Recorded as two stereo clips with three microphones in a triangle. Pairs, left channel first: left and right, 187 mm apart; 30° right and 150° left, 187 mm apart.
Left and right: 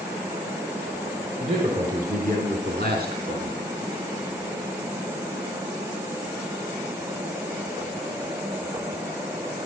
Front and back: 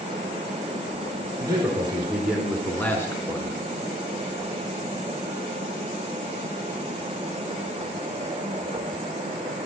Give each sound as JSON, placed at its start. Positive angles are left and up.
{"t": 1.4, "sound": "a man speaking", "azimuth_deg": -140, "distance_m": 4.5}